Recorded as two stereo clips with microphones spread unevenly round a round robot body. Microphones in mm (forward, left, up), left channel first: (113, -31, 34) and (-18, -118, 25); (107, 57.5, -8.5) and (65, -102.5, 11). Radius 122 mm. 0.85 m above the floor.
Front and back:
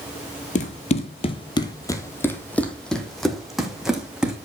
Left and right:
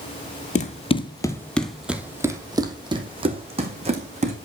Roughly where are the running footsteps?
Ahead left.